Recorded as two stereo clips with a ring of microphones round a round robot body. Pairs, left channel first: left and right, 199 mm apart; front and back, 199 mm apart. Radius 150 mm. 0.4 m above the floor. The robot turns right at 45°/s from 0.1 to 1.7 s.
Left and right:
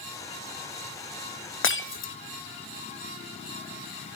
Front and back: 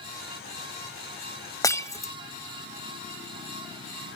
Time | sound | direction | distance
1.6 | breaking glass | 75° left | 1.4 m